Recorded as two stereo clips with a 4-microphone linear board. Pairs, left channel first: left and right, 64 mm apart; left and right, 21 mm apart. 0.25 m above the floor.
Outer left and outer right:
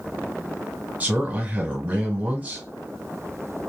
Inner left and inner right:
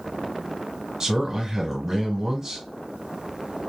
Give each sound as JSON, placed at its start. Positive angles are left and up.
{"t": 1.0, "sound": "a man speaking", "side_deg": -25, "distance_m": 1.5}